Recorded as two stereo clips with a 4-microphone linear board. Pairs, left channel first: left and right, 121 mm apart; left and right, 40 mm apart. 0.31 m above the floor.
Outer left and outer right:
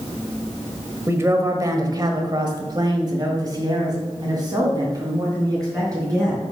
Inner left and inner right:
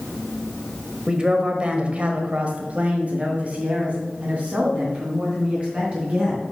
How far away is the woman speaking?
About 1.4 m.